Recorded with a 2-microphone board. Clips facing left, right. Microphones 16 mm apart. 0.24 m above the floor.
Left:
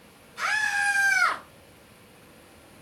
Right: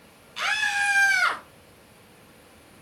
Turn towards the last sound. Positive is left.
turn(degrees=-70)  # may be behind; listen again after turning